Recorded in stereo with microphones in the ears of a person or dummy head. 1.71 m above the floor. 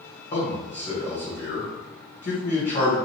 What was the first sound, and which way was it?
A man speaking, 50° left (ahead or behind).